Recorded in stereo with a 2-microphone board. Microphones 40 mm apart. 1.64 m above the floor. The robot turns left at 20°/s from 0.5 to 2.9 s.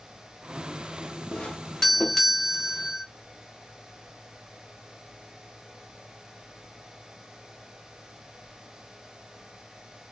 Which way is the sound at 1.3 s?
25° left.